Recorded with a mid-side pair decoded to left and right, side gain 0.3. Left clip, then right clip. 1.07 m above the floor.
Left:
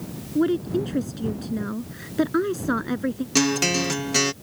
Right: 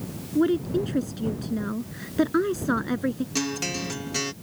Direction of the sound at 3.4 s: 70° left.